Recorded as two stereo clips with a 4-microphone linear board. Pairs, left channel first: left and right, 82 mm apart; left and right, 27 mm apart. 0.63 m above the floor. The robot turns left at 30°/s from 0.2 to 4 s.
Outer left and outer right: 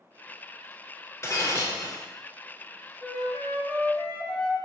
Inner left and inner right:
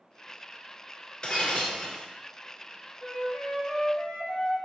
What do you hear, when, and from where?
1.2 s breaking glass: 40° left (ahead or behind), 0.8 m; by 2.0 s 50° left (ahead or behind), 0.8 m
3.0 s a flute: centre (ahead or behind), 1.1 m; by 4.5 s 30° left (ahead or behind), 1.1 m